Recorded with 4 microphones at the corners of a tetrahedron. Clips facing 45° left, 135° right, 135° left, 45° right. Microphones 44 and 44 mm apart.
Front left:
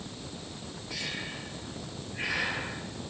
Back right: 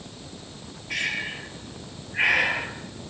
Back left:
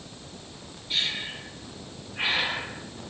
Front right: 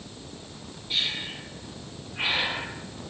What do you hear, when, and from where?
0.9 s breathing: 130° right, 2.5 m